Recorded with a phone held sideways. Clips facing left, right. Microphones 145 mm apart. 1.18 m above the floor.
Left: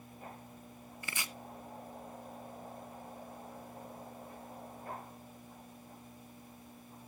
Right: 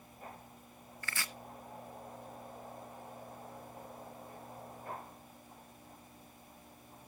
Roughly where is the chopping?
Centre.